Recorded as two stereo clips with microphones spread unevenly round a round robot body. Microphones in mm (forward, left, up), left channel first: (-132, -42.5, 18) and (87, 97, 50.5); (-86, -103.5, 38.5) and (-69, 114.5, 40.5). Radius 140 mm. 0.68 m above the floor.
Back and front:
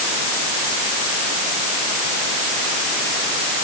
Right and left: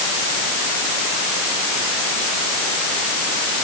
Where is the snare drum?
I don't hear a snare drum.